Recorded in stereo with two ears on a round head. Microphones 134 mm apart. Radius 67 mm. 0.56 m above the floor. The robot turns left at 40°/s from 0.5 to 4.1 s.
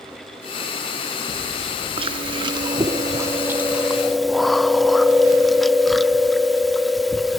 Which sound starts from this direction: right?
Chewing, at 2.0 s.